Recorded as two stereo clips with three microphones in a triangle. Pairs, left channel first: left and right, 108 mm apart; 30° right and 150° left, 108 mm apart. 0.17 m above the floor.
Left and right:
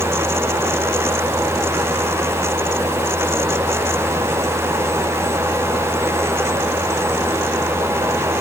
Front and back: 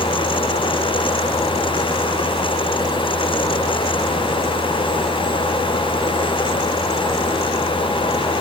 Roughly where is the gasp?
I don't hear a gasp.